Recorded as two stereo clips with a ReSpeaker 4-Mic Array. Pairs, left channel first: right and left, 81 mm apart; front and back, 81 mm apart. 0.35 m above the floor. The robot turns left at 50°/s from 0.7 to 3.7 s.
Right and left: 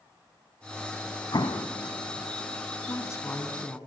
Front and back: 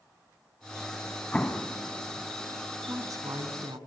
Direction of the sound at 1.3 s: 70° right.